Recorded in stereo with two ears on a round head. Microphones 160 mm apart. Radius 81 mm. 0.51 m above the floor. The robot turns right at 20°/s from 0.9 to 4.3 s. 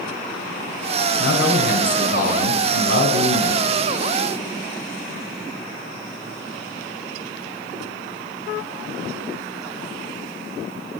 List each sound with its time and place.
1.2 s a man speaking: 80° left, 2.5 m; by 3.6 s 125° left, 2.5 m